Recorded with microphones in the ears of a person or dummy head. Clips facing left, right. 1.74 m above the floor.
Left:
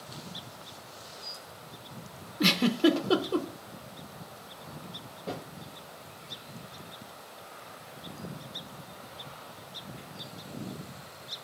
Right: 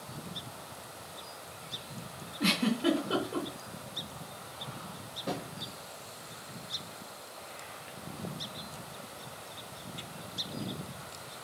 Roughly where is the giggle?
Left.